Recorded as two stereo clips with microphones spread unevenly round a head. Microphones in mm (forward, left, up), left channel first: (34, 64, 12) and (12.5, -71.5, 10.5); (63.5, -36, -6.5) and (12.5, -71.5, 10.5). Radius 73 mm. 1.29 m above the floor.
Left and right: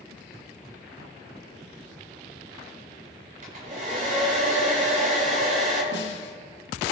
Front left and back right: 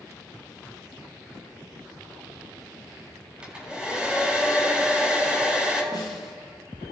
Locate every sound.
3.4 s a hair dryer: 70° right, 7.5 m
5.9 s a snare drum: 95° left, 2.5 m